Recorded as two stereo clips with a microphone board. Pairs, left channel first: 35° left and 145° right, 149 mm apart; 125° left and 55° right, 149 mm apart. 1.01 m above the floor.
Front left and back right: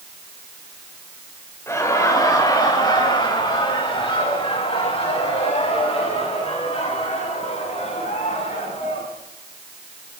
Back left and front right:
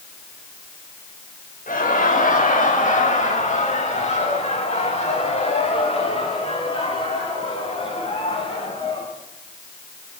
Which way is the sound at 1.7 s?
105° left.